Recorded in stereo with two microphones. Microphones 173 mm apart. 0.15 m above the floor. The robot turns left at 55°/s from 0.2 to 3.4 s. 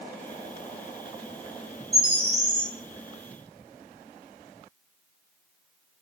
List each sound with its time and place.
1.9 s a bird: 20° right, 1.3 m; by 2.7 s 60° right, 1.3 m